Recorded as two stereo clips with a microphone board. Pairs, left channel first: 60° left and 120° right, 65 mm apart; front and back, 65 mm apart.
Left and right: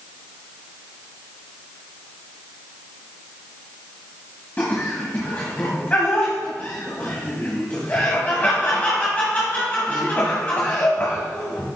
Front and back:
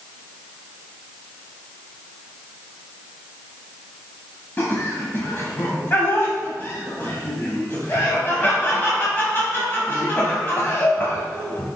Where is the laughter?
20° left, 1.2 m.